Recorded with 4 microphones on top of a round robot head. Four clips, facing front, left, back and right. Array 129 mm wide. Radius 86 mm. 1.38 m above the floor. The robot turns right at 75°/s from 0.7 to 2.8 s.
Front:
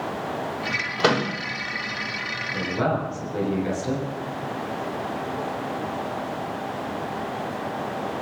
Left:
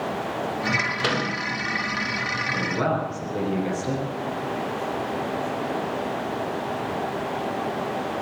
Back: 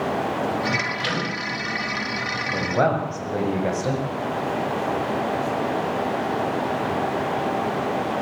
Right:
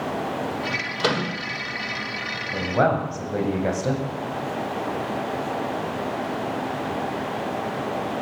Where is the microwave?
15° right, 4 m; by 1.3 s 10° left, 4 m.